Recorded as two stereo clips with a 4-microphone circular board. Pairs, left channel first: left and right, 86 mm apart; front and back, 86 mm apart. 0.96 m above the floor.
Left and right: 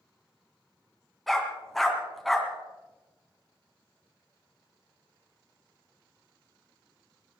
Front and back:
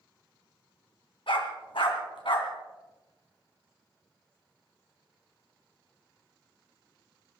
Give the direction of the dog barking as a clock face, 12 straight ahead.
12 o'clock.